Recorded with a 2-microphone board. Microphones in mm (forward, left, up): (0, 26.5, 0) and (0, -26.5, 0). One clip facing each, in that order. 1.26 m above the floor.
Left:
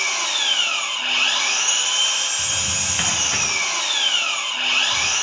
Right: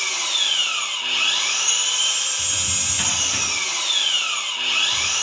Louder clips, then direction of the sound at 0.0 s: Left 2 dB; 50° left (ahead or behind).